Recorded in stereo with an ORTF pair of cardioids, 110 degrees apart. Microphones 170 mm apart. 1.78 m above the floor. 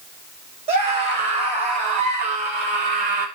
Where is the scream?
35° right, 8 m; by 3.3 s 45° right, 8 m.